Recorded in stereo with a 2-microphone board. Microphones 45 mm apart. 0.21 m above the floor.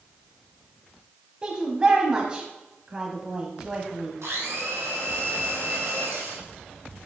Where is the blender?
70° right (ahead or behind), 2.5 m.